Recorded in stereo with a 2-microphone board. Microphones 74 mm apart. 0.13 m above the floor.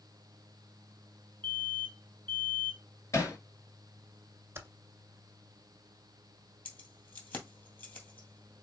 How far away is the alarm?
About 1.3 m.